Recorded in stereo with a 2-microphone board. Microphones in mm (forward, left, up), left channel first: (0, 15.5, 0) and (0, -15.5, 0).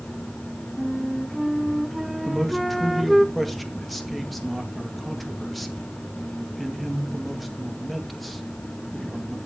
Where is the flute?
Centre (ahead or behind), 0.6 m.